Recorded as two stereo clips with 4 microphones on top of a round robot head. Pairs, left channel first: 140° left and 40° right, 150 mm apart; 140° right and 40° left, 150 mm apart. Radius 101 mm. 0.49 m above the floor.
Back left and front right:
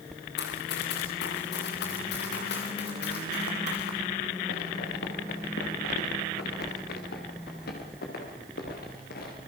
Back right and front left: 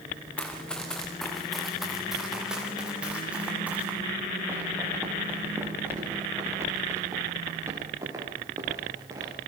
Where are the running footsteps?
140° left, 3 m; by 9.3 s 110° left, 7 m.